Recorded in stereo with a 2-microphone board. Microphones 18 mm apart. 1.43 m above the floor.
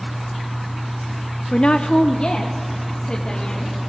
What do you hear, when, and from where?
1.5 s a woman speaking: 60° left (ahead or behind), 0.5 m; by 3.8 s 70° left (ahead or behind), 2.5 m